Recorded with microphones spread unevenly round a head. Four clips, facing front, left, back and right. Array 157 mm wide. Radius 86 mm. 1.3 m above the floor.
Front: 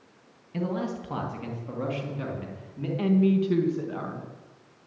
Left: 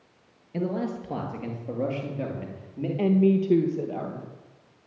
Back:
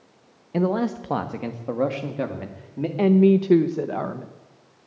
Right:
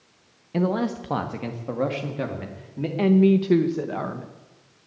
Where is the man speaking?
170° right, 1.4 m; by 2.9 s straight behind, 2.5 m.